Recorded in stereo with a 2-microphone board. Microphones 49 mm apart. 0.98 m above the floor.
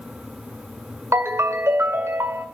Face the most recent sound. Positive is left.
turn(degrees=-80)